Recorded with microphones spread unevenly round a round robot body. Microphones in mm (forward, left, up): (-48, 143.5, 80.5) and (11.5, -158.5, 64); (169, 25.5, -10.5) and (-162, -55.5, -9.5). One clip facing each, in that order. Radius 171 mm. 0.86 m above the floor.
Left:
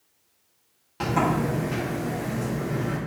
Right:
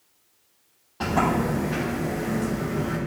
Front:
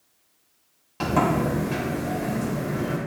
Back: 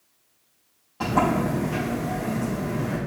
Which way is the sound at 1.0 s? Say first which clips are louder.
Right 1 dB, even; 55° left.